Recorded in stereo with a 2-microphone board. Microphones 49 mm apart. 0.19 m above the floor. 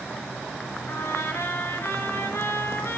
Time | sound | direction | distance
0.9 | a trumpet | 60° left (ahead or behind) | 3 m